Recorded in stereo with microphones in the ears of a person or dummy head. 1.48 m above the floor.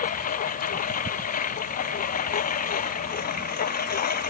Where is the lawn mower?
40° left (ahead or behind); by 4.3 s 45° left (ahead or behind).